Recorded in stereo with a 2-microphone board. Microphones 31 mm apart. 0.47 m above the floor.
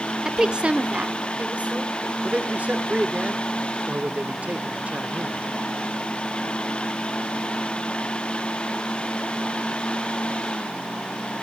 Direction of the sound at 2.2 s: 45° right (ahead or behind).